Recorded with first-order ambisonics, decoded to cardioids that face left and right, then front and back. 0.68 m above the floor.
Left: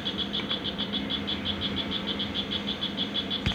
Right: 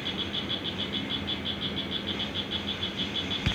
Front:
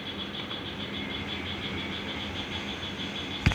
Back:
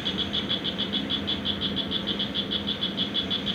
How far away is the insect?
About 0.8 m.